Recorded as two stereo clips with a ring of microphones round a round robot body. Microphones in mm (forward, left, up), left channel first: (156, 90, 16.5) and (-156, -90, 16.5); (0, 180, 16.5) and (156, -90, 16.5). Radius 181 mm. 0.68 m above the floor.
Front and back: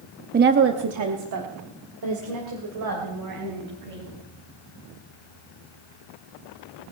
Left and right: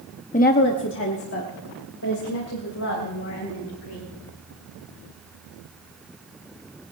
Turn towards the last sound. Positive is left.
turn(degrees=170)